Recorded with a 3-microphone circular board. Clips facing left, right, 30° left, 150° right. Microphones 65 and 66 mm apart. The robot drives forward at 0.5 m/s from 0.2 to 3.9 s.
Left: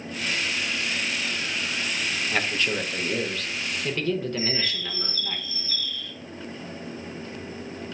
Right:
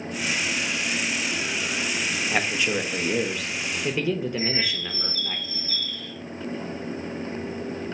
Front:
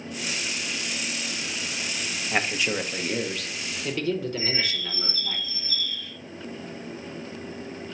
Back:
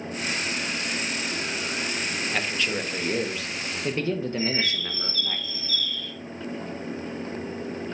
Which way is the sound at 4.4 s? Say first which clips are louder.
Right 1 dB, back 2 dB; 120° right.